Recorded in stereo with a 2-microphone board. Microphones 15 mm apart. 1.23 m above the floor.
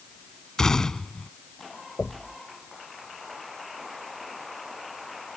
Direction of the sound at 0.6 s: 50° left (ahead or behind).